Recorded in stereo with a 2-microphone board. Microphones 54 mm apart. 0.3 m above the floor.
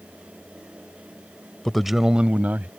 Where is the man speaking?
10° left (ahead or behind); by 2.7 s 35° right (ahead or behind).